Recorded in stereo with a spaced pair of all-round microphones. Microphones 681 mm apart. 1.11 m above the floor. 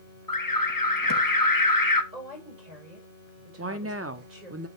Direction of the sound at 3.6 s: 20° right (ahead or behind).